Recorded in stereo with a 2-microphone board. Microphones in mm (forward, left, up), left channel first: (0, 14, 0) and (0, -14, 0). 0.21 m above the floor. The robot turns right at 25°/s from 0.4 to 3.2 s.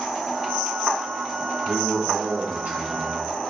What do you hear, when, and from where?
1.7 s a man speaking: 100° right, 3.5 m; by 3.2 s 60° right, 3.5 m